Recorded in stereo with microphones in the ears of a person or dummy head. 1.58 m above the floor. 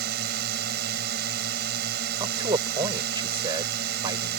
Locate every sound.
0.0 s a drone: 60° right (ahead or behind)
2.2 s a man speaking: 25° right (ahead or behind)